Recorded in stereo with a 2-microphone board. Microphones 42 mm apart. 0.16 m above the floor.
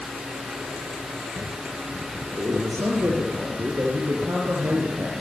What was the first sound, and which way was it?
A man speaking, 70° right (ahead or behind).